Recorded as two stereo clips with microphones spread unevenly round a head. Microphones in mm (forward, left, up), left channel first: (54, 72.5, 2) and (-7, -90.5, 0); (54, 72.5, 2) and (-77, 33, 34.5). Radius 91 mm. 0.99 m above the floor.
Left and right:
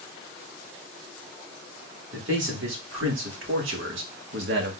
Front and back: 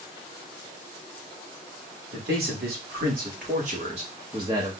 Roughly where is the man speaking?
Behind right.